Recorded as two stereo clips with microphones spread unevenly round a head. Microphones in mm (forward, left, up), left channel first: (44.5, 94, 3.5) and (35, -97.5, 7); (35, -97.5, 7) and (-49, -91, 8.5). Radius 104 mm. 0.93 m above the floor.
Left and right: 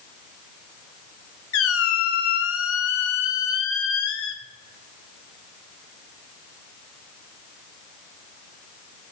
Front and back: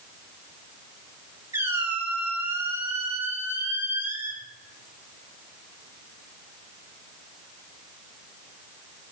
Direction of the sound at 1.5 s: 105° left.